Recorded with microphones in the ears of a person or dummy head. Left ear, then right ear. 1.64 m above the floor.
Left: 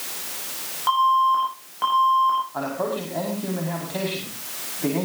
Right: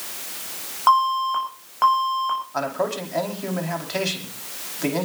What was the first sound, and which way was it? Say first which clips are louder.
An alarm: even; 45° right (ahead or behind).